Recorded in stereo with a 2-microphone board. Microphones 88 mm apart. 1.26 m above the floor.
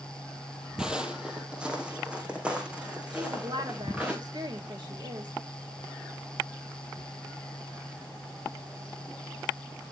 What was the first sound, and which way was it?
Footsteps, 10° right (ahead or behind).